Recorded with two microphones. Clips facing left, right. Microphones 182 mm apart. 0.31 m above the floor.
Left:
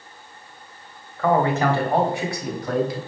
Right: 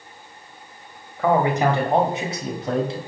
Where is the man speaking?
10° right (ahead or behind), 1.4 m; by 3.0 s 25° right (ahead or behind), 2.0 m.